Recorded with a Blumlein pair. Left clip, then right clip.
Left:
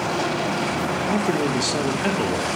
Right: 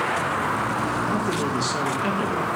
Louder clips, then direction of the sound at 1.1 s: Left 2 dB; 15° left.